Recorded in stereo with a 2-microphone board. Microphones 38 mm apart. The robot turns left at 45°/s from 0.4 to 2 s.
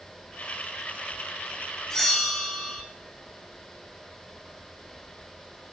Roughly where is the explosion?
I don't hear an explosion.